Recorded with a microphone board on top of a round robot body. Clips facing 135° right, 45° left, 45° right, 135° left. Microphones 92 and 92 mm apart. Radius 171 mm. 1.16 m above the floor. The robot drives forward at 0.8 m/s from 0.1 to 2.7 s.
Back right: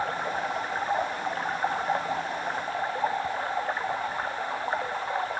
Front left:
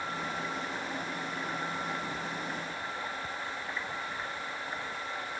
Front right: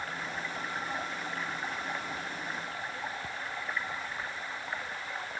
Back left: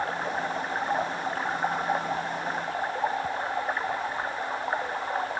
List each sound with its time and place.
0.0 s running water: 175° right